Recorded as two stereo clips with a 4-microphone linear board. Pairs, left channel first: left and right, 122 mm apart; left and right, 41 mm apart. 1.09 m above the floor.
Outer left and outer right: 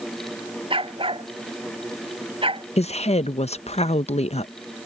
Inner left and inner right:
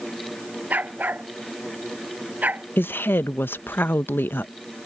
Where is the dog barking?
45° right (ahead or behind).